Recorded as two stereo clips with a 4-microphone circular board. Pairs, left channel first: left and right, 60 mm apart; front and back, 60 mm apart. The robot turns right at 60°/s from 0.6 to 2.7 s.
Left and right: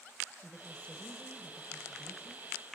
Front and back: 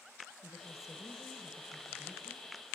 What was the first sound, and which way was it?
A woman speaking, 5° left.